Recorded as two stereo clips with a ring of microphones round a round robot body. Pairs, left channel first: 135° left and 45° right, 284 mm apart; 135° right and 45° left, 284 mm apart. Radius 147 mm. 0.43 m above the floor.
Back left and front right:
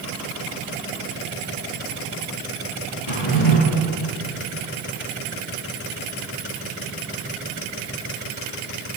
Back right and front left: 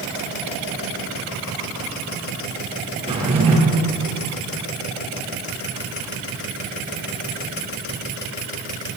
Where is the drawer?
115° left, 7 m.